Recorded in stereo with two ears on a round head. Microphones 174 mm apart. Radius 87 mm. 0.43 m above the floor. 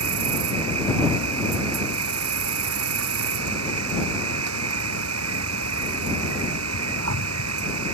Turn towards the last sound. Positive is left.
turn(degrees=-85)